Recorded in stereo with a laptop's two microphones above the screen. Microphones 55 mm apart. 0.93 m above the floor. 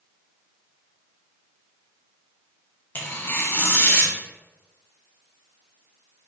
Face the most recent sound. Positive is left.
turn(degrees=40)  # may be behind; listen again after turning